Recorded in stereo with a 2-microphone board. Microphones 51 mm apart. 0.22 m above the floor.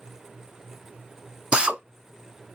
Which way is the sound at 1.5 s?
20° right (ahead or behind).